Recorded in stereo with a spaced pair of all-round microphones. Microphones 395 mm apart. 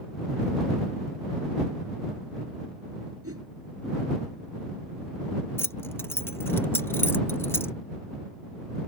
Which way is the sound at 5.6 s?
5° left (ahead or behind).